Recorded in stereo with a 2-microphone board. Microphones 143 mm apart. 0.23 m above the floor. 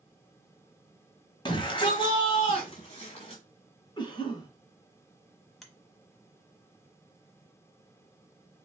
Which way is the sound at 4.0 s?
30° left (ahead or behind).